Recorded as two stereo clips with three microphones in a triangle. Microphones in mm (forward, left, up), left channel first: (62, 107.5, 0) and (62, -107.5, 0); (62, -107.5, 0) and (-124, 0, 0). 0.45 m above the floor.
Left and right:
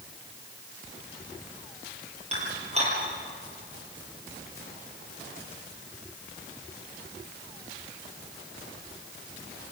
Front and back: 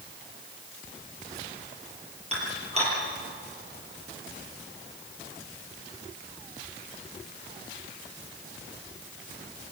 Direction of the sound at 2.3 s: 150° right.